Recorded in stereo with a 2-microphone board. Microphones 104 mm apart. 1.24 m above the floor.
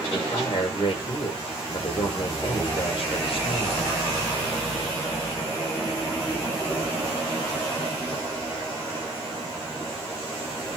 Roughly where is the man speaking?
Left.